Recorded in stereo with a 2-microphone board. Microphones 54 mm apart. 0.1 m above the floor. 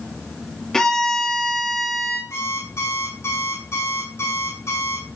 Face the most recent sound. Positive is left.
turn(degrees=55)  # may be behind; listen again after turning